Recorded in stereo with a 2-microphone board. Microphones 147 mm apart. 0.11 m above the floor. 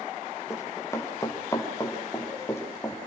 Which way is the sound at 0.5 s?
20° left (ahead or behind).